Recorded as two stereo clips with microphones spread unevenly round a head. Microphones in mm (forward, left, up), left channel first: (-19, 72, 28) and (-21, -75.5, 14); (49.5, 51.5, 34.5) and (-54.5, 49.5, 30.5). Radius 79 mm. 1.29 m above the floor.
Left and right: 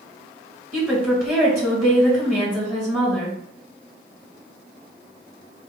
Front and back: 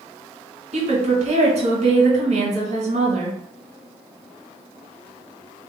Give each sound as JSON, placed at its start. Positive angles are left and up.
{"t": 0.7, "sound": "a woman speaking", "azimuth_deg": -170, "distance_m": 2.5}